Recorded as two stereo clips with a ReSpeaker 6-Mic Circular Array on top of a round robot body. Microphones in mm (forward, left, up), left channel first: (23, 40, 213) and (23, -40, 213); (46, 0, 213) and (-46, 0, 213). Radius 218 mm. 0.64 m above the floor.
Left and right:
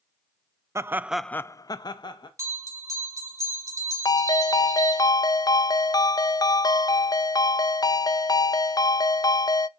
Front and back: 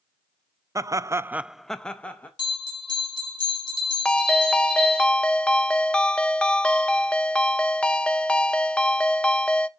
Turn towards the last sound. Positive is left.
turn(degrees=75)